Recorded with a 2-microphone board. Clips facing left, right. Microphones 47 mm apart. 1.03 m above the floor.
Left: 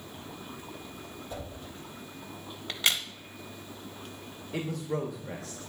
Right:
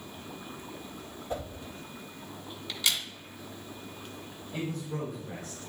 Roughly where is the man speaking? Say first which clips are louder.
Left 3 dB; left.